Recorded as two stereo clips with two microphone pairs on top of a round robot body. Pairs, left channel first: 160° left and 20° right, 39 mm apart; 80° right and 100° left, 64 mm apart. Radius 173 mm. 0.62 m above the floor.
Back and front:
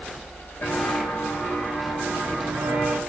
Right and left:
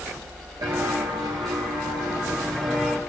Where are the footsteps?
140° left, 0.8 m; by 3.0 s 10° right, 0.9 m.